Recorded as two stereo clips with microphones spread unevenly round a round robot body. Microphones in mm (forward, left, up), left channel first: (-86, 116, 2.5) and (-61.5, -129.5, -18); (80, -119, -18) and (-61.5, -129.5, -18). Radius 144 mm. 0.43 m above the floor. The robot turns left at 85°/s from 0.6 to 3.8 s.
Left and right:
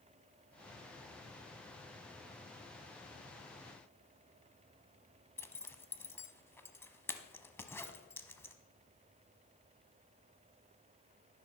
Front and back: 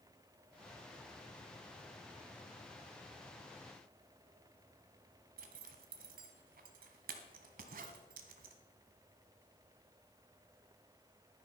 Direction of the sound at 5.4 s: 175° left.